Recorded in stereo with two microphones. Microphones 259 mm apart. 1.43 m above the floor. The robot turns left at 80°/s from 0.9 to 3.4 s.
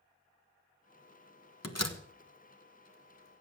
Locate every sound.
1.6 s a door slam: 75° left (ahead or behind), 1.3 m; by 2.0 s 70° left (ahead or behind), 1.3 m